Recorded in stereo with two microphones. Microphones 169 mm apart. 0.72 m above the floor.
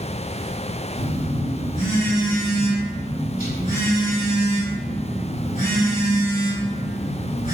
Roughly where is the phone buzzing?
Left.